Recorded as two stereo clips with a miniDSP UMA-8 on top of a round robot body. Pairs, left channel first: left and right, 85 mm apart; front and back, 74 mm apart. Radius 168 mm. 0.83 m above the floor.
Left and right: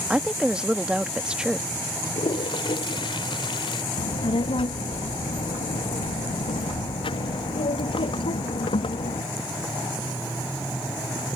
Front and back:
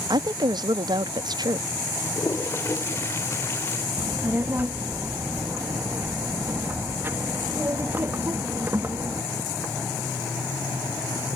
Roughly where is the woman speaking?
Behind.